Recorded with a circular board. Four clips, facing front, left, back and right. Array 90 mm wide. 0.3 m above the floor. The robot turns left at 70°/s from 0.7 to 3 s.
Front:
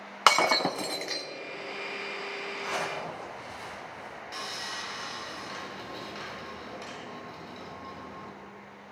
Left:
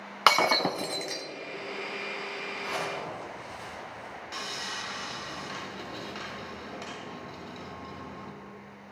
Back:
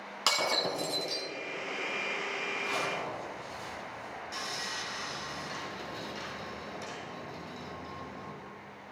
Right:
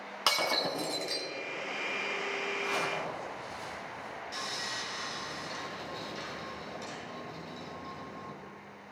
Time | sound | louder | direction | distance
0.3 | breaking glass | left 8 dB, front 8 dB | 40° left | 1.0 m
2.6 | a zipper | left 2 dB, front 2 dB | 55° left | 5.5 m
4.3 | sawing | left 3 dB, front 2 dB | 70° left | 3.5 m